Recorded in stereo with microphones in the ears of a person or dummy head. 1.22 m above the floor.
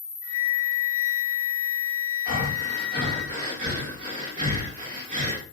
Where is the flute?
40° left (ahead or behind), 0.6 m.